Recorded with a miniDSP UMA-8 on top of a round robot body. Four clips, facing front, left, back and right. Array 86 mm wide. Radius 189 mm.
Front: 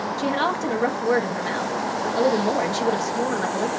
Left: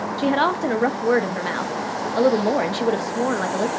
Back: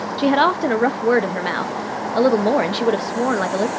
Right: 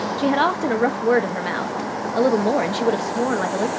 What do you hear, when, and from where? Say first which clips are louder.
0.2 s a woman speaking: even, back 8 dB; 170° left, 0.9 m